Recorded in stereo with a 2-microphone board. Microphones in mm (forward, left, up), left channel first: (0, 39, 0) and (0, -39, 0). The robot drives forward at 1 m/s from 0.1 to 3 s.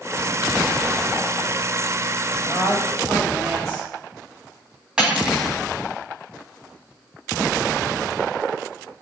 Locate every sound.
2.4 s a woman speaking: 45° right (ahead or behind), 3.5 m; by 3.9 s 40° right (ahead or behind), 4 m
5.0 s cutlery clinking: 10° right (ahead or behind), 2.5 m